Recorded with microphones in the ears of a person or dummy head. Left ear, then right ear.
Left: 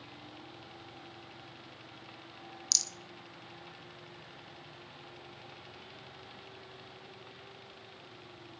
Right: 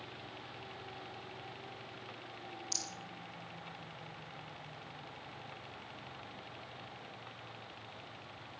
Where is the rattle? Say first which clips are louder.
Left 10 dB; 80° left, 1.4 m.